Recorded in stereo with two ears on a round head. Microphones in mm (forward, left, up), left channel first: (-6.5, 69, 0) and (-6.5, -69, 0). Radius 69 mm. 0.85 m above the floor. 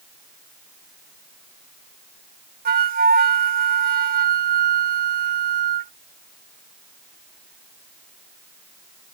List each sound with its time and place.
2.6 s a flute: 60° right (ahead or behind)